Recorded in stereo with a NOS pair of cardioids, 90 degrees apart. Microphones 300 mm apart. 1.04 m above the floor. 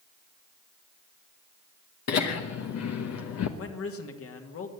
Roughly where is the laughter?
Ahead left.